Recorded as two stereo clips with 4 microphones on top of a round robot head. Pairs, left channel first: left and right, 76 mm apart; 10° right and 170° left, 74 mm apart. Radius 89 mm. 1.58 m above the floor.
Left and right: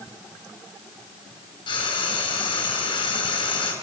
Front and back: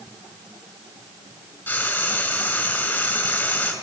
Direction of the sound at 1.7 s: 55° left.